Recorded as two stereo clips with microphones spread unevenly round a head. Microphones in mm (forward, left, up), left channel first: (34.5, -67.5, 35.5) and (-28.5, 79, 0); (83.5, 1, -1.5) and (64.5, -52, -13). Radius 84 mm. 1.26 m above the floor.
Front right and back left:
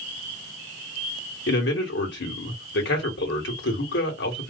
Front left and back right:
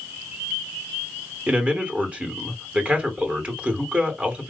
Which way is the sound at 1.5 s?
45° right.